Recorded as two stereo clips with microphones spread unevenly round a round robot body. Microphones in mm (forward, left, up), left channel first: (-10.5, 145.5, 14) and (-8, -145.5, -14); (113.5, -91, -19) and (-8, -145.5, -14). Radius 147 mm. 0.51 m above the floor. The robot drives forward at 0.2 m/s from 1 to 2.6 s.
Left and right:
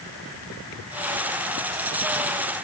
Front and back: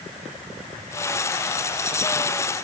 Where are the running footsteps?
No running footsteps in this recording.